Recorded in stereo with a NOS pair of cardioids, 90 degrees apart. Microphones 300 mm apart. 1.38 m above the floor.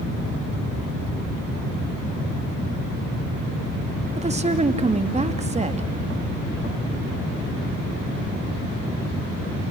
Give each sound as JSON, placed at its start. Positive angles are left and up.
{"t": 4.2, "sound": "a woman speaking", "azimuth_deg": -20, "distance_m": 2.5}